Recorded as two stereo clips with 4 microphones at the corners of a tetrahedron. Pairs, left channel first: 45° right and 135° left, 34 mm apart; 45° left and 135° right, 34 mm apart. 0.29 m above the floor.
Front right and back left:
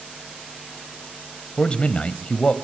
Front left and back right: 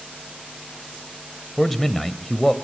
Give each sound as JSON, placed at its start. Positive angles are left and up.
{"t": 1.6, "sound": "a man speaking", "azimuth_deg": -35, "distance_m": 1.1}